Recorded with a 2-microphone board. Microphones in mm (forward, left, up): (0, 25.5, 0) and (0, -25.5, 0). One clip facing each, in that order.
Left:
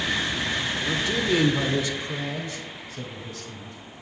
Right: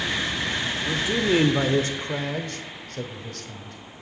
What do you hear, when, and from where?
0.8 s a man speaking: 5° right (ahead or behind), 0.7 m; by 4.0 s 70° right (ahead or behind), 1.9 m